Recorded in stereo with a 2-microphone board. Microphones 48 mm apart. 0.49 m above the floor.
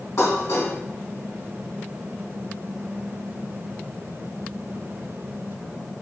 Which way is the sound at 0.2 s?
70° left (ahead or behind).